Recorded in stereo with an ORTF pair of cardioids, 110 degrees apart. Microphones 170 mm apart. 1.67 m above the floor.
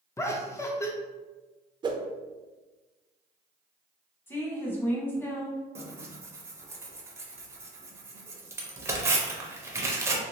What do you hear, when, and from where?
0.2 s laughter: 15° left, 0.5 m
1.8 s a whoosh: 25° right, 0.5 m
4.3 s a woman speaking: 15° left, 0.9 m
5.8 s tearing paper: 15° right, 0.7 m